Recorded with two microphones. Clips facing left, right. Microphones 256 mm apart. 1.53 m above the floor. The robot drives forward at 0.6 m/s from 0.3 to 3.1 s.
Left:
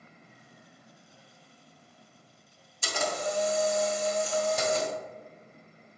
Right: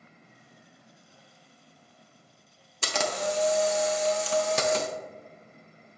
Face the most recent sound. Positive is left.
turn(degrees=-80)